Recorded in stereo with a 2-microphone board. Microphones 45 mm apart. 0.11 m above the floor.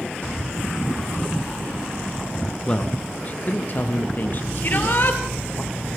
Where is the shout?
45° left (ahead or behind), 2.5 m.